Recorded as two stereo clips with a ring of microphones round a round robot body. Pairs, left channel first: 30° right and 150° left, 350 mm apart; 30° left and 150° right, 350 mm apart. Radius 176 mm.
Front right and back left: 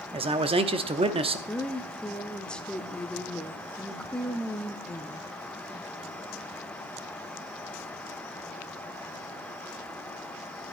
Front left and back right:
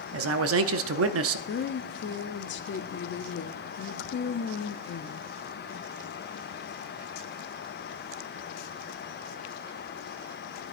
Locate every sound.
0.1 s a man speaking: 145° right, 0.7 m
1.5 s a woman speaking: 55° left, 0.6 m